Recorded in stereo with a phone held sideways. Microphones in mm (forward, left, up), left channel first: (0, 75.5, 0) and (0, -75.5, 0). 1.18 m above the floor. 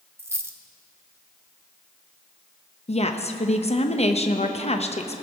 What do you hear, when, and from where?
0.2 s a dropped coin: 15° right (ahead or behind), 0.7 m
2.9 s a woman speaking: 45° left (ahead or behind), 0.9 m